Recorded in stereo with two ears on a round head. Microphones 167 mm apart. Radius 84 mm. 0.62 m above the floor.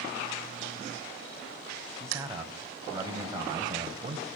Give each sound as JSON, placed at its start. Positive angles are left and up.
{"t": 2.0, "sound": "a man speaking", "side_deg": -15, "distance_m": 4.5}